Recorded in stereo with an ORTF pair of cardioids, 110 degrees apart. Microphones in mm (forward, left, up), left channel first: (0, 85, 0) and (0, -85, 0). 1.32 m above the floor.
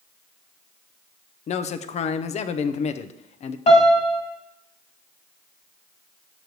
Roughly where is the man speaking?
Ahead left.